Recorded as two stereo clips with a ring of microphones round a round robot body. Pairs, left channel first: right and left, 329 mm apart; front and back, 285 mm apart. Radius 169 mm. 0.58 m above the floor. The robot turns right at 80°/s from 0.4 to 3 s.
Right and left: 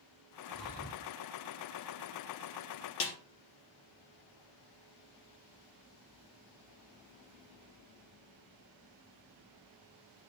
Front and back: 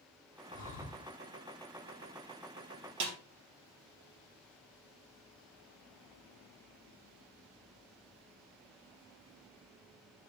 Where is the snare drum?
140° right, 2 m.